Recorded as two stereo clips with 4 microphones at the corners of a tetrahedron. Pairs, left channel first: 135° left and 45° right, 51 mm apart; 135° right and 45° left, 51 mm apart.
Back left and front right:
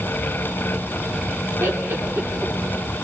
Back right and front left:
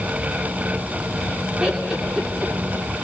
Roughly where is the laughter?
Ahead right.